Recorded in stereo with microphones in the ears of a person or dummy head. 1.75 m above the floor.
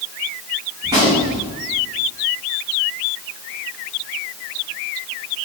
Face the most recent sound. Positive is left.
turn(degrees=-20)  # may be behind; listen again after turning